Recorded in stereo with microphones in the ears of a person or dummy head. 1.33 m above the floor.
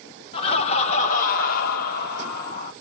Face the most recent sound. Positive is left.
turn(degrees=60)  # may be behind; listen again after turning